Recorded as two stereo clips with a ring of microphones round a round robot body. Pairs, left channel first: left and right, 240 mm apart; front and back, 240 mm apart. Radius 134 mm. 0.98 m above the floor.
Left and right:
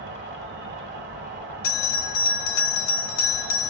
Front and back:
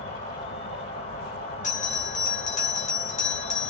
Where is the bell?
65° left, 0.6 m.